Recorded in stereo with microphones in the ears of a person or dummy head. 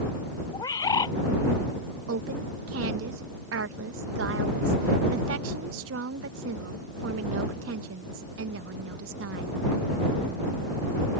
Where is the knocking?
No knocking in this recording.